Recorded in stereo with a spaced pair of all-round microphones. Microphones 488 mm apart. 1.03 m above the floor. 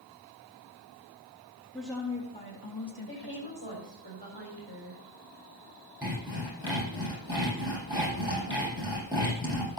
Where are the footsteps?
I don't hear footsteps.